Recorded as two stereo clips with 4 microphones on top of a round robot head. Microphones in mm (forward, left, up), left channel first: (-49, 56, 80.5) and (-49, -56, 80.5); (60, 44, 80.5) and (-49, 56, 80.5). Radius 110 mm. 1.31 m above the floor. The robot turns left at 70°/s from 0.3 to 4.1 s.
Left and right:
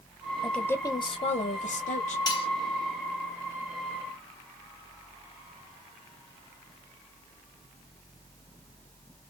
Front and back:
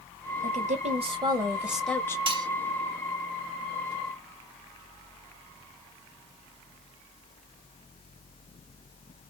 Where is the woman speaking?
Straight behind, 1.2 m; by 2.2 s 60° left, 1.2 m.